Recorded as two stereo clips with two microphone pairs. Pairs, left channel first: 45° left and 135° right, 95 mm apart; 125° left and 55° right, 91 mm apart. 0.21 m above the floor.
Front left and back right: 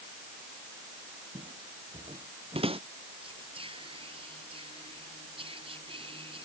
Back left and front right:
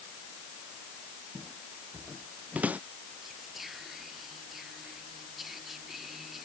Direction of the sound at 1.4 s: 135° right.